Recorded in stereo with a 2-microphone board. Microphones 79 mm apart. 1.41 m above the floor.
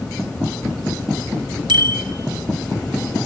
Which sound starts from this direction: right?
A bicycle bell, at 1.7 s.